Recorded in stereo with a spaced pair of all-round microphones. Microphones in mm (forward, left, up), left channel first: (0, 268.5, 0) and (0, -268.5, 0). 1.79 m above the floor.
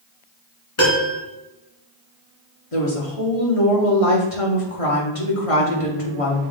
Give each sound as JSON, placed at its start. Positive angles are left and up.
{"t": 0.8, "sound": "a piano", "side_deg": 65, "distance_m": 2.5}
{"t": 2.7, "sound": "a woman speaking", "side_deg": 90, "distance_m": 2.0}